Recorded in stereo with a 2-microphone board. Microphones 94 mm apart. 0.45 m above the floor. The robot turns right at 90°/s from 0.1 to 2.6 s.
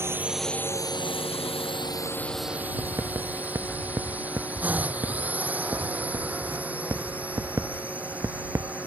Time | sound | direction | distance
0.0 | a drone | 25° right (ahead or behind) | ?
2.8 | writing | 30° right (ahead or behind) | ?